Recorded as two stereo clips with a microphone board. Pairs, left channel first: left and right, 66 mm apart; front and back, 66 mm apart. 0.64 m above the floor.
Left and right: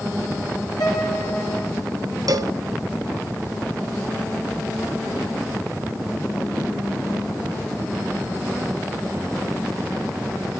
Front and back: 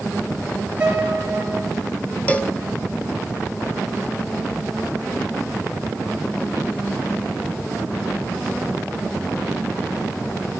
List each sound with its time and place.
0.8 s a piano: 110° left, 5 m
2.3 s a cowbell: 70° right, 1.5 m